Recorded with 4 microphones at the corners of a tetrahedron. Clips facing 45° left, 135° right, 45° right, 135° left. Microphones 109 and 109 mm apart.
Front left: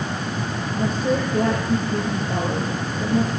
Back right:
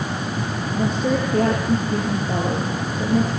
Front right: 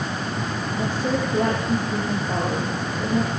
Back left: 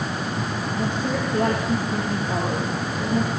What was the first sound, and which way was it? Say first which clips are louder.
A woman speaking: back right 1 dB, front right 2 dB; 125° right.